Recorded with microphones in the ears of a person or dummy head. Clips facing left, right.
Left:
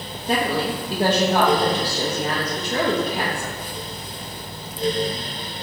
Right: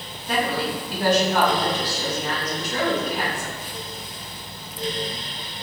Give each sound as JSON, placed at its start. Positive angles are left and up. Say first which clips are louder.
{"t": 0.3, "sound": "a woman speaking", "louder": "left 2 dB", "side_deg": 30, "distance_m": 0.6}